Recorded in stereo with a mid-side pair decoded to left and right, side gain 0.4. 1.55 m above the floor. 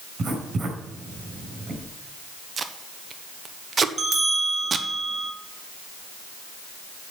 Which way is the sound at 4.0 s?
40° right.